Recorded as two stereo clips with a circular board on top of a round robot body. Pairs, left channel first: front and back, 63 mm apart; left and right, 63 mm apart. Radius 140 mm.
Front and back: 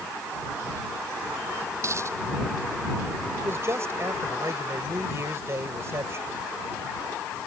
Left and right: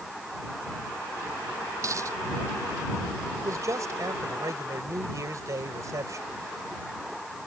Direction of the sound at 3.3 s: 130° right.